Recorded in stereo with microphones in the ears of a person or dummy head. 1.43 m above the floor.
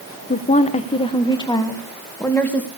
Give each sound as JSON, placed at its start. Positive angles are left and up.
{"t": 0.3, "sound": "a woman speaking", "side_deg": 35, "distance_m": 1.1}